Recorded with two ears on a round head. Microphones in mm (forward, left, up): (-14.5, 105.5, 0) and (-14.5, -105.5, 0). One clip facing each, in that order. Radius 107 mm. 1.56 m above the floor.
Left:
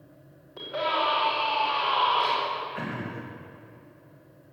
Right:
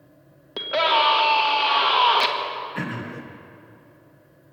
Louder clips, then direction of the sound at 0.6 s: Right 6 dB; 80° right.